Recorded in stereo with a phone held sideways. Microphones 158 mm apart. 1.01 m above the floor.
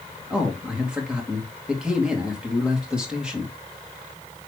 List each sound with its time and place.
0.3 s a man speaking: 5° right (ahead or behind), 2 m